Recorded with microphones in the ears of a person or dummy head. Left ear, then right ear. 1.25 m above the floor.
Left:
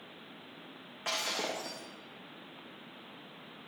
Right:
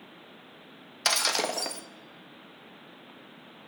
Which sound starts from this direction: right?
Breaking glass, at 1.1 s.